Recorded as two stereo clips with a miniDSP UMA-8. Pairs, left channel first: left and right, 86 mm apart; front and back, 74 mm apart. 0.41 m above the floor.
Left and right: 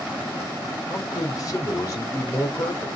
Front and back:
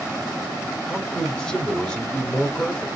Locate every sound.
0.9 s a man speaking: 70° left, 1.2 m